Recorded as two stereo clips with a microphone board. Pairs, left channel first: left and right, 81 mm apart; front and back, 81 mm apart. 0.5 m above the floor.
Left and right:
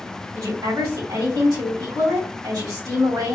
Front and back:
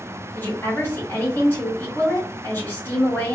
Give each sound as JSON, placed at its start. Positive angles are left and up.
{"t": 0.3, "sound": "a woman speaking", "azimuth_deg": -55, "distance_m": 2.5}